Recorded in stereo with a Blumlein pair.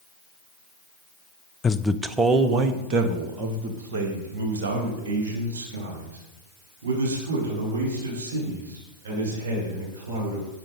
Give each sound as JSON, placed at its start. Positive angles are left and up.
{"t": 1.6, "sound": "a man speaking", "azimuth_deg": 20, "distance_m": 0.6}